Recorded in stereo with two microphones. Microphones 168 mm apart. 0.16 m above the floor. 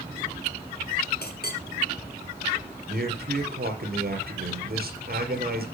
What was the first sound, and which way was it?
A clink, 70° left (ahead or behind).